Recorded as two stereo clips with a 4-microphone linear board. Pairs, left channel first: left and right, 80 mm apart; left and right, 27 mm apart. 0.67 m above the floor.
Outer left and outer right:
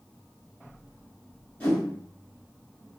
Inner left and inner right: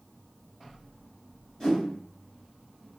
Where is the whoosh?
20° left (ahead or behind), 1.6 m.